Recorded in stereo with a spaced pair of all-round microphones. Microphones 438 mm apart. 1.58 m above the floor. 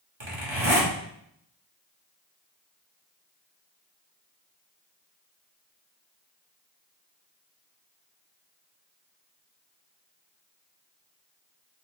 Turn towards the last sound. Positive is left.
turn(degrees=-80)